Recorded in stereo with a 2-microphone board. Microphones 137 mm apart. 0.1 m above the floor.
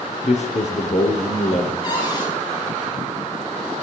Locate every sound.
0.2 s a man speaking: 55° left (ahead or behind), 2.5 m
1.8 s a cupboard door: 35° left (ahead or behind), 9.5 m